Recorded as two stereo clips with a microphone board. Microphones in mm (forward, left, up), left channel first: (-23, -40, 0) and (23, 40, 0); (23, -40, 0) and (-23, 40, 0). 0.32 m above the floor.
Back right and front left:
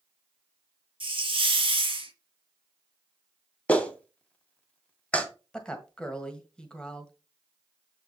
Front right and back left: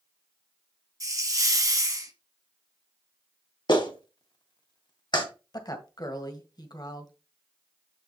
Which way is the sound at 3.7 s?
45° right.